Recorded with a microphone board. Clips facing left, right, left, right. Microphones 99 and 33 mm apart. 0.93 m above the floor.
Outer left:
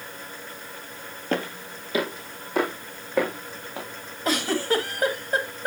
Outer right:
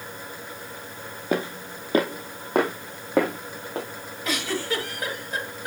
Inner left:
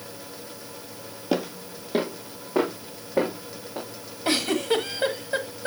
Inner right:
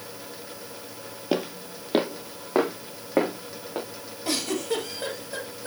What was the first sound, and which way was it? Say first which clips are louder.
Footsteps: outer right 2 dB, inner left 1 dB; 10° right (ahead or behind).